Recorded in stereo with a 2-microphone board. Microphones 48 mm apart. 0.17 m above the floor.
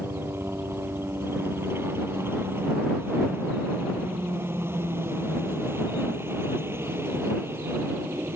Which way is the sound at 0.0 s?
55° right (ahead or behind).